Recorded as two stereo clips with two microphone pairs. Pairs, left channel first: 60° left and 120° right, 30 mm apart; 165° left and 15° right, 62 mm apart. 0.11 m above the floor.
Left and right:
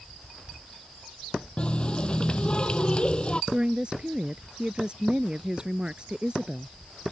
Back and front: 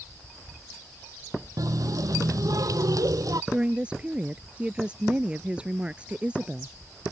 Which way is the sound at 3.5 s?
80° right.